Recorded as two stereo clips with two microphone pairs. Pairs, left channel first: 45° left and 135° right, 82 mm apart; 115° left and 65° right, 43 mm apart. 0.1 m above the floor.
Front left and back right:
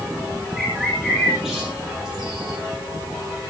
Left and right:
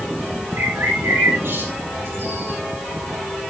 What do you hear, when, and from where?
0.6 s a bird: 45° right, 8 m